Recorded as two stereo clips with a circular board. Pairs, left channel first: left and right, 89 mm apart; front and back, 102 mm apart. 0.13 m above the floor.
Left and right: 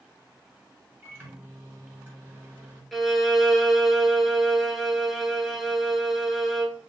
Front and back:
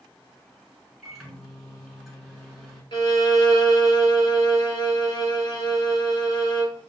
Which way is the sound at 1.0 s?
100° right.